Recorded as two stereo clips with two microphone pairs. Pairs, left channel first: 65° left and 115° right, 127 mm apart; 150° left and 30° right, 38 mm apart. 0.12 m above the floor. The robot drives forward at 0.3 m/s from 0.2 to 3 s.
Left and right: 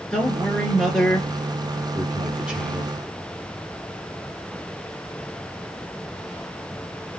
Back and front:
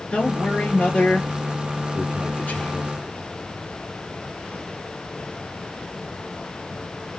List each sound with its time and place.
0.1 s a man speaking: 135° left, 1.6 m; by 2.9 s 160° left, 2 m